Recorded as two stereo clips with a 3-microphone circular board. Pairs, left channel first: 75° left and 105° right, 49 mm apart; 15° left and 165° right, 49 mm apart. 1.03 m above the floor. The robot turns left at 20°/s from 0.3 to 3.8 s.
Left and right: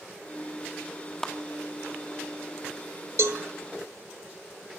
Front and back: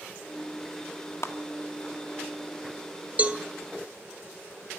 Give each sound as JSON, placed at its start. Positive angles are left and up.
{"t": 1.2, "sound": "a clap", "azimuth_deg": -5, "distance_m": 1.5}
{"t": 3.2, "sound": "a cowbell", "azimuth_deg": -110, "distance_m": 1.5}